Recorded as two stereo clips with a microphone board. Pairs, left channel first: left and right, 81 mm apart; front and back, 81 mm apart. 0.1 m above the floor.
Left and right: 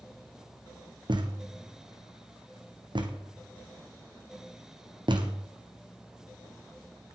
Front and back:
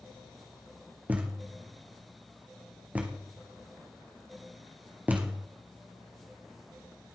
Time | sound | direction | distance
1.1 | a thud | 110° right | 2.0 m